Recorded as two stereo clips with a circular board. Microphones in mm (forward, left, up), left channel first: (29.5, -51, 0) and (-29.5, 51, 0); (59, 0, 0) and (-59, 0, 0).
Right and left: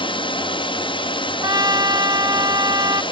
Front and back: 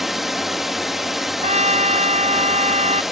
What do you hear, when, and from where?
0.0 s a drone: 90° right
1.4 s a trumpet: 175° left